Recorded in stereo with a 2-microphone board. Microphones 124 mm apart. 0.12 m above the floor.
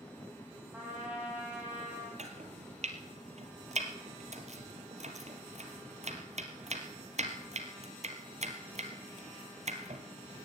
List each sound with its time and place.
0.7 s a trumpet: 10° right (ahead or behind), 4 m
2.2 s chopping: 60° right (ahead or behind), 1.6 m